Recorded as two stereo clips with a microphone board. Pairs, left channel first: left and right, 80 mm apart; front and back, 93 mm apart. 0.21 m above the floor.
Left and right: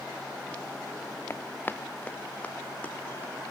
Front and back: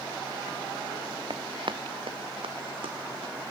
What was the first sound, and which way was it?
Running footsteps, 145° left.